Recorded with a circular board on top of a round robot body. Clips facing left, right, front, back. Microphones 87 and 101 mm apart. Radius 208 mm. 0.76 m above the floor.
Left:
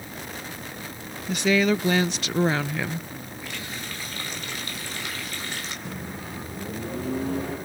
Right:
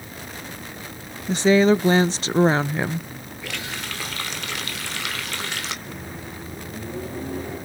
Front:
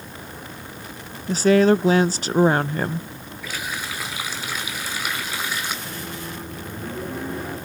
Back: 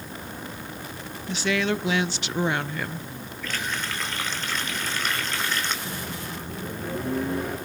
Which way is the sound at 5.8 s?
90° left.